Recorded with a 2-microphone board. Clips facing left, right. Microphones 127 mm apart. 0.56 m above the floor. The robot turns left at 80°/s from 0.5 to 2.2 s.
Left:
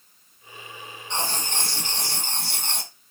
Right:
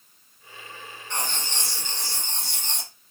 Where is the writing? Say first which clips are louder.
Left 3 dB; 155° left, 1.1 m; by 2.9 s 70° left, 1.1 m.